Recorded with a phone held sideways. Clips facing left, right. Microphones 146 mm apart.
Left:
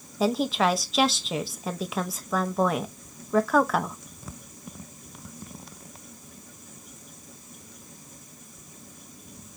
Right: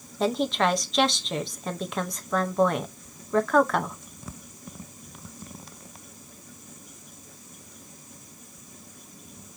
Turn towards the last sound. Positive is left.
turn(degrees=0)  # may be behind; listen again after turning